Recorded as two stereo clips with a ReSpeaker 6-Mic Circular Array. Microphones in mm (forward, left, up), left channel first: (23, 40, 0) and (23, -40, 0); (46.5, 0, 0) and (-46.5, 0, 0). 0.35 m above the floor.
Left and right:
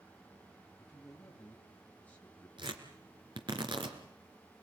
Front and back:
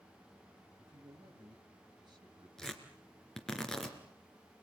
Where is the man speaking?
160° left, 2 m.